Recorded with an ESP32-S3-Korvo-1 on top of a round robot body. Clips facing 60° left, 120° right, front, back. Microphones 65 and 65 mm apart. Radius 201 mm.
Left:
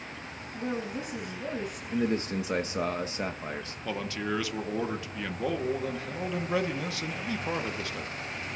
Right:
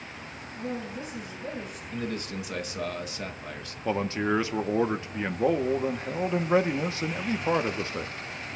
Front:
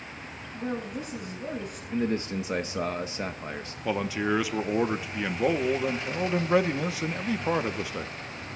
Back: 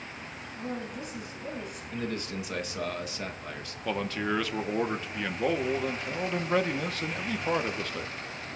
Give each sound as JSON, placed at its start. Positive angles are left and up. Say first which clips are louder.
{"t": 0.5, "sound": "a woman speaking", "louder": "left 1 dB, front 4 dB", "azimuth_deg": 25, "distance_m": 7.0}
{"t": 1.9, "sound": "a man speaking", "louder": "left 5 dB, front 7 dB", "azimuth_deg": 35, "distance_m": 1.1}
{"t": 3.9, "sound": "a man speaking", "louder": "right 6 dB, front 3 dB", "azimuth_deg": -75, "distance_m": 1.0}